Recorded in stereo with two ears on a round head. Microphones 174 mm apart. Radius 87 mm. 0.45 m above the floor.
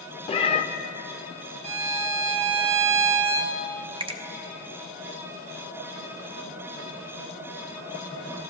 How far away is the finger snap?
About 0.7 m.